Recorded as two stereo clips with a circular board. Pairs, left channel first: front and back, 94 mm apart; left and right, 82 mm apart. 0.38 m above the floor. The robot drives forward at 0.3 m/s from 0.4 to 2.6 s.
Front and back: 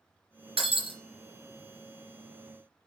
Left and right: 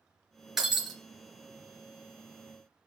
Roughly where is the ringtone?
No ringtone in this recording.